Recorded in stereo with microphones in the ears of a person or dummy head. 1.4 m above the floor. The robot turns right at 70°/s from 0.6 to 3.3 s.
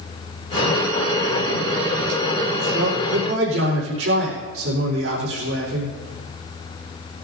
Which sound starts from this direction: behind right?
A man speaking, at 2.7 s.